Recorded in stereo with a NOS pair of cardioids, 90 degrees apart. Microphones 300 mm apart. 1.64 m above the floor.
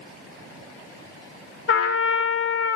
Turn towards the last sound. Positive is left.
turn(degrees=50)